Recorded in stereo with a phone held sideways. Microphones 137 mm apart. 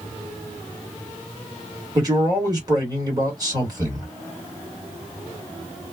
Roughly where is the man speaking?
Right.